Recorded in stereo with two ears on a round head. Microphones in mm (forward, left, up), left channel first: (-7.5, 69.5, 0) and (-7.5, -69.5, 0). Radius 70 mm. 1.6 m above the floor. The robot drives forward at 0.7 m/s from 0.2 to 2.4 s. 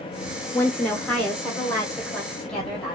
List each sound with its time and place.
0.5 s a woman speaking: 15° left (ahead or behind), 0.6 m; by 3.0 s 5° left (ahead or behind), 1.9 m